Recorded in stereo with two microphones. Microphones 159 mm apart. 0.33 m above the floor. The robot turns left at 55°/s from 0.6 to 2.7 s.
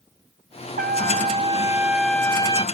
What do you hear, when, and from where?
0.8 s a trumpet: 110° right, 0.5 m; by 2.6 s 145° left, 0.5 m